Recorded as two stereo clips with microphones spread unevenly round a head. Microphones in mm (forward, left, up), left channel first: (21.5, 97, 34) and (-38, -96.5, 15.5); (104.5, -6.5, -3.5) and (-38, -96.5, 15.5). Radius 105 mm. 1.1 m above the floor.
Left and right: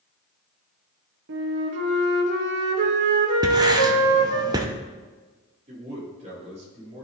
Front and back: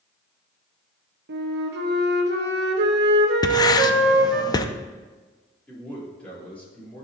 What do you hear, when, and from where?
1.3 s a flute: 130° right, 1.0 m
3.4 s writing: 35° right, 0.6 m
5.7 s a man speaking: 50° right, 3.5 m